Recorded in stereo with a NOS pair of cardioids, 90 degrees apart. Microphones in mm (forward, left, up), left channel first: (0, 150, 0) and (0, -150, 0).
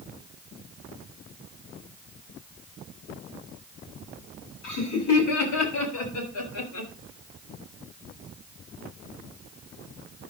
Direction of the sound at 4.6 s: 70° left.